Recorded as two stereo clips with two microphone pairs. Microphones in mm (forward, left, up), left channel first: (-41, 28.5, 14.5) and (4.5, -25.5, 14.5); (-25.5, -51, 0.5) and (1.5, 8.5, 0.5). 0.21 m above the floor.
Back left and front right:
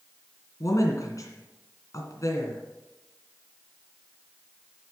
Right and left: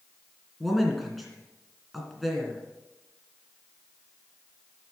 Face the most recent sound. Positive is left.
turn(degrees=155)